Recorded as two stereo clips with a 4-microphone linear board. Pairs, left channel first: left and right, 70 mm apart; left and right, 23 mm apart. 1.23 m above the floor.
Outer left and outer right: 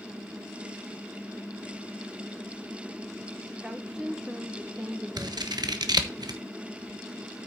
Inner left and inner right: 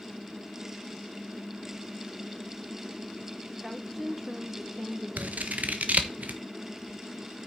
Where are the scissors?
75° right (ahead or behind), 1.1 m.